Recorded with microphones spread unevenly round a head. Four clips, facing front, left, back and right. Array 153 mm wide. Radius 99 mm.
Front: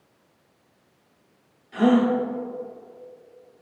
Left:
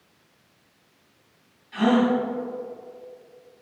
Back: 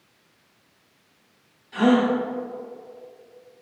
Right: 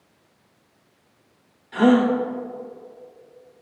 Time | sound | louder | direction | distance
1.7 | a gasp | right 4 dB, even | 65° right | 1.0 m